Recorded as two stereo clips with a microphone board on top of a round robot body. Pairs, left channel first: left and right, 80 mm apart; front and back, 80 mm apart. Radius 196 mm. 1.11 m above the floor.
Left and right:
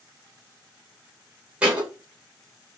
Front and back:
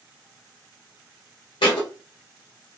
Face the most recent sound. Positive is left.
turn(degrees=-10)